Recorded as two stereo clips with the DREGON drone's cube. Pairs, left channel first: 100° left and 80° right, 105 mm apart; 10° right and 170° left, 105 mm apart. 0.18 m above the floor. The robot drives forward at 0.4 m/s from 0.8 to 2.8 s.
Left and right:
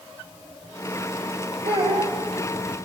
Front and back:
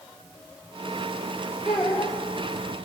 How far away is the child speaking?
About 5.5 m.